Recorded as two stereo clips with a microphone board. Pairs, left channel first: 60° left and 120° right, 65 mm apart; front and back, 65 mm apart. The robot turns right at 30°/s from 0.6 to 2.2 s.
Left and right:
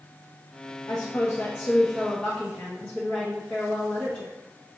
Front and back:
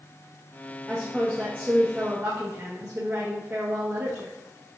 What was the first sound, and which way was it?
A woman speaking, 95° left.